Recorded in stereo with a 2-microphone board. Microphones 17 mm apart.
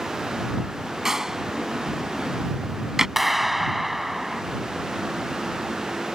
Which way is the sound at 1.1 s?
30° right (ahead or behind).